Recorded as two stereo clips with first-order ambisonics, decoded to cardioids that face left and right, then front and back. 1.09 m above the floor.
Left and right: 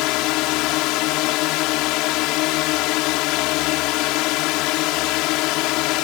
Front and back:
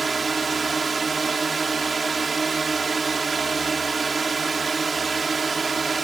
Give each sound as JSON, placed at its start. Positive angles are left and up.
{"t": 0.0, "sound": "a drone", "azimuth_deg": 110}